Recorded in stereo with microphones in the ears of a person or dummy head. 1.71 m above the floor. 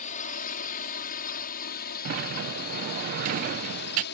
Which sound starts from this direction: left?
A drone, at 0.0 s.